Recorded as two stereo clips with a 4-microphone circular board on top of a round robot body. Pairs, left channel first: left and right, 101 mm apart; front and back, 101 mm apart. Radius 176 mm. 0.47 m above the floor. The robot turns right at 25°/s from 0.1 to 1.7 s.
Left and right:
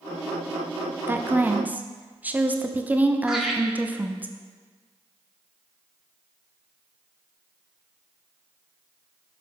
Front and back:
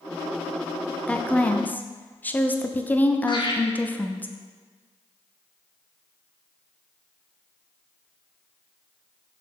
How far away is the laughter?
About 1.9 m.